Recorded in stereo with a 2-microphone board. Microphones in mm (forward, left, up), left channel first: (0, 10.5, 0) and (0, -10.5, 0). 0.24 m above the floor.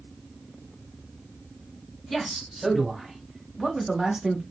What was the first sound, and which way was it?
A man speaking, 10° left (ahead or behind).